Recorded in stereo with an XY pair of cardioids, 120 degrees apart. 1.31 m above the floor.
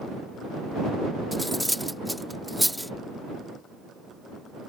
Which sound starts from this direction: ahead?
Cutlery clinking, at 1.3 s.